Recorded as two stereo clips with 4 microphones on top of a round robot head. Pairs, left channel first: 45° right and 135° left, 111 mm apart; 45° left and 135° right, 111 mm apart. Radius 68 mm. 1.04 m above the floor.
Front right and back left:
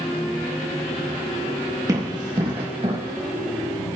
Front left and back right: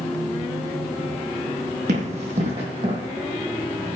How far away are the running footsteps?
About 3 m.